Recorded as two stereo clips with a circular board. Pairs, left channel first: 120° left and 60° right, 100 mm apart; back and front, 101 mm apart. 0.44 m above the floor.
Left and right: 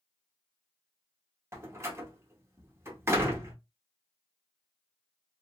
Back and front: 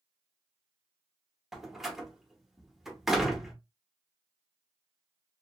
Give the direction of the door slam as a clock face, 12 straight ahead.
3 o'clock.